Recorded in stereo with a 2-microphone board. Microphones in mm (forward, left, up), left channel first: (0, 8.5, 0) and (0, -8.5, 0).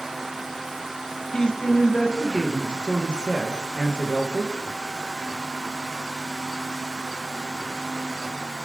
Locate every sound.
1.3 s a man speaking: 70° left (ahead or behind), 0.9 m